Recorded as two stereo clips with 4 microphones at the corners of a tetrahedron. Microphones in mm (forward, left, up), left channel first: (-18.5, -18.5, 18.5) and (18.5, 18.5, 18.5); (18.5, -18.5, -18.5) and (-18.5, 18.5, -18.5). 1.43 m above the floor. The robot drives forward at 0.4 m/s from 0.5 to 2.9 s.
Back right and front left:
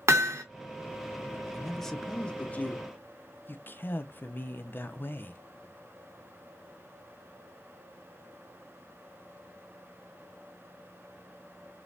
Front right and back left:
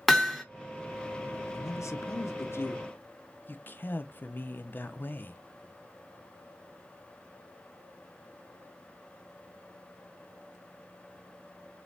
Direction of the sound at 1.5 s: 45° right.